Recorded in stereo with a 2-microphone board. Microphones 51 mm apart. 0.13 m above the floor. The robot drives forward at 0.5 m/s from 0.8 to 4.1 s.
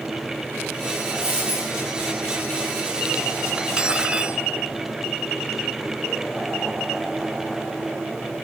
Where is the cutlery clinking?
20° right (ahead or behind), 0.8 m.